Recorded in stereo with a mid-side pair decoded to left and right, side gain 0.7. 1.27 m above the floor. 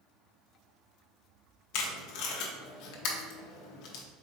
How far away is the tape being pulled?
About 0.8 m.